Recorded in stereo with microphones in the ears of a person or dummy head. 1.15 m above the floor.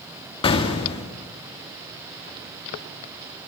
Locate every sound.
0.4 s an explosion: 30° left (ahead or behind), 2 m